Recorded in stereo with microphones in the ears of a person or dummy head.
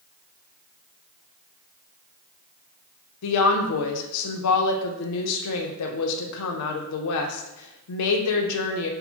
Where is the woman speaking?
85° left, 0.6 m.